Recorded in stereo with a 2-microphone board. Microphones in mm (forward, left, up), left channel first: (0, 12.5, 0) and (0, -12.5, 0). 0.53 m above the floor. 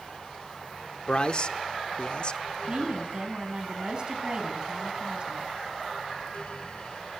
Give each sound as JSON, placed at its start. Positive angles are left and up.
{"t": 1.1, "sound": "a man speaking", "side_deg": 40, "distance_m": 1.1}
{"t": 2.7, "sound": "a woman speaking", "side_deg": -40, "distance_m": 4.0}